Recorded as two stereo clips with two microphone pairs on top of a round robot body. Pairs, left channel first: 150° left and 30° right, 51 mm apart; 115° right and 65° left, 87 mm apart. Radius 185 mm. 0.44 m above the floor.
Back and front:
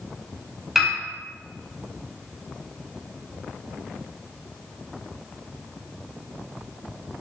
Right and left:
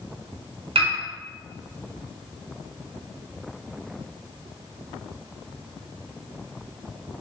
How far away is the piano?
About 0.8 m.